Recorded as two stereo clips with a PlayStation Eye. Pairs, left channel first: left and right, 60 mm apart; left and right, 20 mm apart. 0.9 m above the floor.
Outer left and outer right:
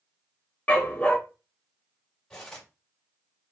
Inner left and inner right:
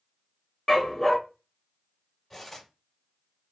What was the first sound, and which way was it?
A dog barking, 25° left (ahead or behind).